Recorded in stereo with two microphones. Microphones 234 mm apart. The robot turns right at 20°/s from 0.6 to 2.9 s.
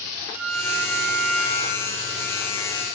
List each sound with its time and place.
0.3 s a violin: 5° right (ahead or behind), 0.9 m; by 2.9 s 15° left (ahead or behind), 0.9 m